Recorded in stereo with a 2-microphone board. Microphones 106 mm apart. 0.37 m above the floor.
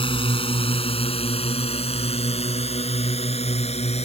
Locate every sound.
0.0 s a drone: 55° left (ahead or behind); by 4.0 s 75° left (ahead or behind)